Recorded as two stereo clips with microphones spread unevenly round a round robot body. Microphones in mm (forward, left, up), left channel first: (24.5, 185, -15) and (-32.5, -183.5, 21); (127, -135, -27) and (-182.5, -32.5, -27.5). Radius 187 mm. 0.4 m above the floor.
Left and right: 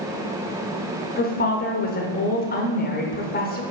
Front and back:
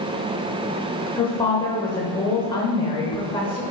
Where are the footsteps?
I don't hear footsteps.